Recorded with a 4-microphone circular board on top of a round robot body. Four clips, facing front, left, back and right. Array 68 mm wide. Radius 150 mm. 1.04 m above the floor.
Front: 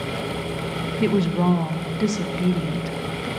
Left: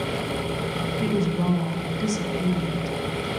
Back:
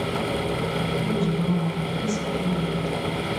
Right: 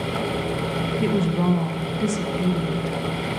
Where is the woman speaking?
20° right, 1.2 m.